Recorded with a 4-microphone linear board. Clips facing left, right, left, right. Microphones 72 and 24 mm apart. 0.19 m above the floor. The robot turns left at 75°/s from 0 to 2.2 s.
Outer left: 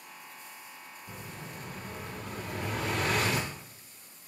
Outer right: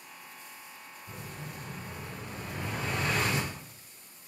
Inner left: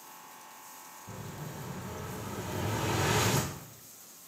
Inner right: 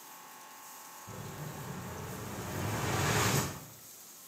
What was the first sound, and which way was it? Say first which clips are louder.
An explosion: outer right 1 dB, inner left 1 dB; straight behind.